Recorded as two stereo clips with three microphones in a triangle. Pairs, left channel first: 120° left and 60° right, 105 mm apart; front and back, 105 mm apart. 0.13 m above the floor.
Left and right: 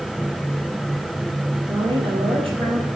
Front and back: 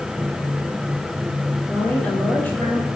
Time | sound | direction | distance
1.7 | a woman speaking | 70° right | 5 m